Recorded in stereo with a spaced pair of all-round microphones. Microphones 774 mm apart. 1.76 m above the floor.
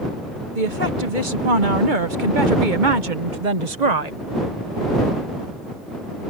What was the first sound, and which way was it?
A woman speaking, 80° right.